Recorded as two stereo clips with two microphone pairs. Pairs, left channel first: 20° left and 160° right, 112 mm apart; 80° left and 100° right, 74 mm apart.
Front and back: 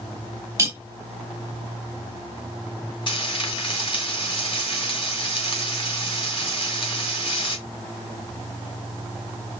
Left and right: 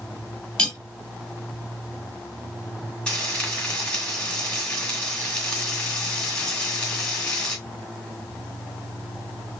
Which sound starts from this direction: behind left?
Cutlery clinking, at 0.6 s.